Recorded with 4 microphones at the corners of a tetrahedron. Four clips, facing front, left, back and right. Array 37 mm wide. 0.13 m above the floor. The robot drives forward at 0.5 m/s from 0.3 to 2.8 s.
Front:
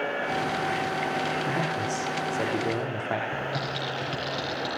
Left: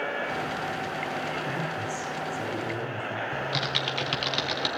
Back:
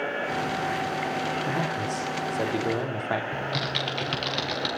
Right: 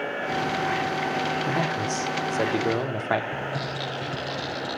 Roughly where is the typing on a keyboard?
Behind left.